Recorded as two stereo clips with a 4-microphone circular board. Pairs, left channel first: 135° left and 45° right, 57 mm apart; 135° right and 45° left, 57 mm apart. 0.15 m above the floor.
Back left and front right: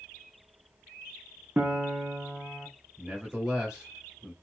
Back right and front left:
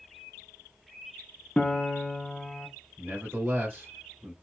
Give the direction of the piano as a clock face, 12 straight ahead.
2 o'clock.